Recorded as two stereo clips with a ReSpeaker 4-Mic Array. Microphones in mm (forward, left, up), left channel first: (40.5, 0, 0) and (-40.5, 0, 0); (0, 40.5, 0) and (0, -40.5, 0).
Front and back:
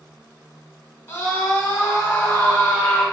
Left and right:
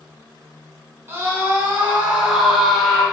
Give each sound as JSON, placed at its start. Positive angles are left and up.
{"t": 1.1, "sound": "a scream", "azimuth_deg": -45, "distance_m": 1.8}